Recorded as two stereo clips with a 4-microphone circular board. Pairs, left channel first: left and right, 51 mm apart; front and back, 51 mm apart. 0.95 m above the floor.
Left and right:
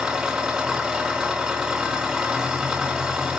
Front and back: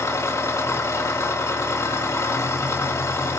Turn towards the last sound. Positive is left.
turn(degrees=-20)